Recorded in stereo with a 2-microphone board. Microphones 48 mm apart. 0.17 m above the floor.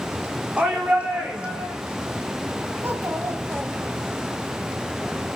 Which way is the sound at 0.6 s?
30° right (ahead or behind).